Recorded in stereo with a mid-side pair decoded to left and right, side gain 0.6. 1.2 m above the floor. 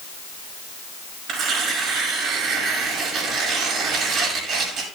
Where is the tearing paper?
60° right, 5.5 m.